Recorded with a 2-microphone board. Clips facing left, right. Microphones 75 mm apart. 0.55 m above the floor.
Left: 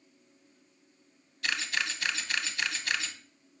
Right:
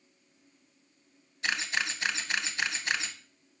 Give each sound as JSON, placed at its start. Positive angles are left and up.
{"t": 1.4, "sound": "a camera shutter", "side_deg": -25, "distance_m": 0.5}